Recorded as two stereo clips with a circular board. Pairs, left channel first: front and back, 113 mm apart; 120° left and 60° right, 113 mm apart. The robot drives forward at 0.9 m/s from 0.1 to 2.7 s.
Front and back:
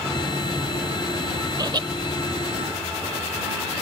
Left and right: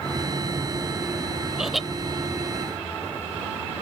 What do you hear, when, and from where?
1.6 s laughter: 145° right; by 1.9 s 150° right